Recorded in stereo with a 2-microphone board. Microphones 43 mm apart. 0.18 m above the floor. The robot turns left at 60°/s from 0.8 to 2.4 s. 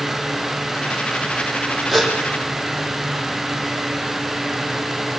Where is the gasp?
Centre (ahead or behind), 6.5 m; by 2.1 s 15° left (ahead or behind), 6.5 m.